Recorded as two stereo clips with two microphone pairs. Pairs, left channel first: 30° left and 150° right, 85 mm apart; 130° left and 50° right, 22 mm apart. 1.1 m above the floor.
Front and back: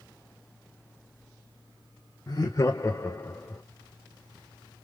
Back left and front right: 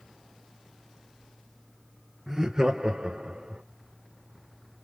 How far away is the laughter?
About 0.9 m.